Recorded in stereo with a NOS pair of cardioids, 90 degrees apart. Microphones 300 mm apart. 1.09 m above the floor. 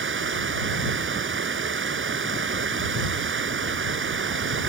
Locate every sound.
0.0 s running water: 40° right